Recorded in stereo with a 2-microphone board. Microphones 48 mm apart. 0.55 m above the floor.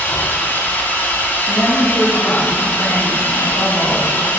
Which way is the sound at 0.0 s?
50° left (ahead or behind).